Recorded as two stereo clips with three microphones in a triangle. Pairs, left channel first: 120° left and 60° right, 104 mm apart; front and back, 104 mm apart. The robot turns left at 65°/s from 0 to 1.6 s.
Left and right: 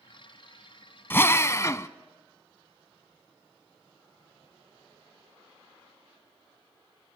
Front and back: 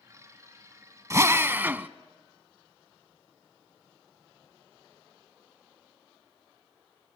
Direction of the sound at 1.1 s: 165° left.